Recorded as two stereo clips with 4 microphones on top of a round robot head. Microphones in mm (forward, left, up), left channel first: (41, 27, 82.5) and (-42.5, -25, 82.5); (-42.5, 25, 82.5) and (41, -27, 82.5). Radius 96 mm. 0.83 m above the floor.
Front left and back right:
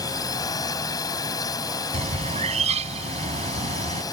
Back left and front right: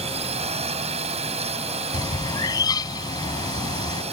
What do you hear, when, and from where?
0.0 s a drone: 20° right
1.9 s a bird: 160° right